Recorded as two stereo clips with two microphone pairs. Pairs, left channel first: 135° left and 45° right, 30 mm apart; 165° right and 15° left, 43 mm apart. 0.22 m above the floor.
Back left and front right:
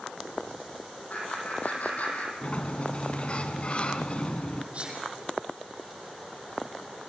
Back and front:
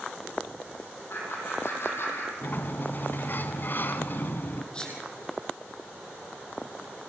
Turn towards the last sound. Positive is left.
turn(degrees=-95)